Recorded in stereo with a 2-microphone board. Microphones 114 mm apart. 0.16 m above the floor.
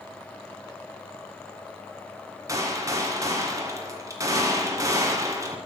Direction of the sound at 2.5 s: 30° right (ahead or behind).